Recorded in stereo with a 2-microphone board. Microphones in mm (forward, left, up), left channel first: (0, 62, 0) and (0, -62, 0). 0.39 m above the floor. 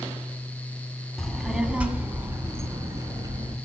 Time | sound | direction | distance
1.2 | a child speaking | 5° left (ahead or behind) | 1.5 m